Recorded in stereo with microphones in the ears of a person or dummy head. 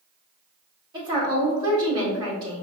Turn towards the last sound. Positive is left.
turn(degrees=-35)  # may be behind; listen again after turning